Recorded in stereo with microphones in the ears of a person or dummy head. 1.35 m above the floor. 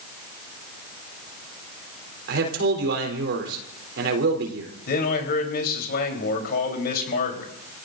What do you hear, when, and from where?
2.3 s a man speaking: 75° right (ahead or behind), 3.5 m
4.9 s a man speaking: 60° left (ahead or behind), 3.5 m